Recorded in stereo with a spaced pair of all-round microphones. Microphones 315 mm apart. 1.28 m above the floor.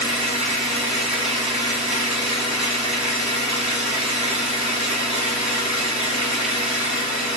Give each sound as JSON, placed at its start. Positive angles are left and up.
{"t": 0.0, "sound": "an engine running", "side_deg": -20, "distance_m": 1.7}